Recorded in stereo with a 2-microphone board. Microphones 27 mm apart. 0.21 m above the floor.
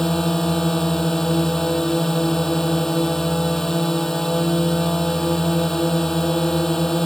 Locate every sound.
0.0 s a drone: 20° left (ahead or behind)